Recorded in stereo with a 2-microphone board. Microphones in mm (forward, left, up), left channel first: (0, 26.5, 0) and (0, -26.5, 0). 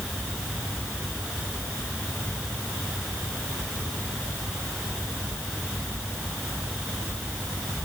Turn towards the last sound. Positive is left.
No sound to turn to.